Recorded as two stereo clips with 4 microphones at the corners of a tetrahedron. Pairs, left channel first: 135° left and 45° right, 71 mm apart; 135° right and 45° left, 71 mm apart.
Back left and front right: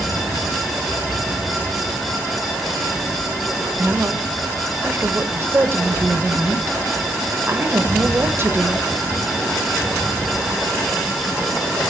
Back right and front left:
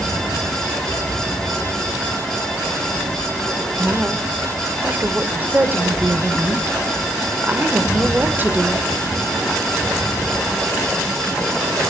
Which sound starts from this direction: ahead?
A woman speaking, at 3.8 s.